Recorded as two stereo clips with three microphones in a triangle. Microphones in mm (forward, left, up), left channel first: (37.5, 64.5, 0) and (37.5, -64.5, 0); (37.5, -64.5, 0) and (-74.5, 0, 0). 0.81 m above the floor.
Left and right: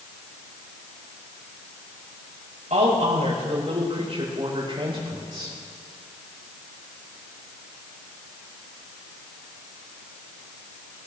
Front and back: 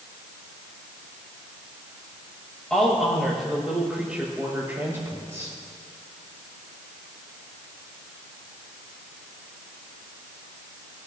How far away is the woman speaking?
About 5 m.